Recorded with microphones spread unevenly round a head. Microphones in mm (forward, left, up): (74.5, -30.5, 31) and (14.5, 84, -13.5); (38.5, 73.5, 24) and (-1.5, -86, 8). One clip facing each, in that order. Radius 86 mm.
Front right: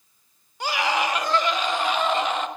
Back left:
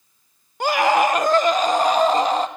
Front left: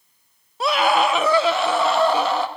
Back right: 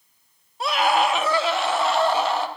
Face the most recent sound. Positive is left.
turn(degrees=75)